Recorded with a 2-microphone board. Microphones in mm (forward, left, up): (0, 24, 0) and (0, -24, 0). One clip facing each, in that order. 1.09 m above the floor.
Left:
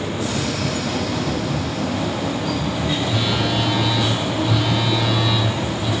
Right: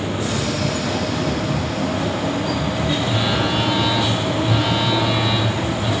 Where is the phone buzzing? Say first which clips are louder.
Right 1 dB; 20° right (ahead or behind), 2.5 m.